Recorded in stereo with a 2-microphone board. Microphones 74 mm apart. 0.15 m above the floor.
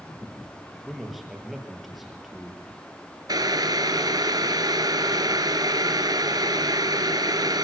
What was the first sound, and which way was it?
A man speaking, centre (ahead or behind).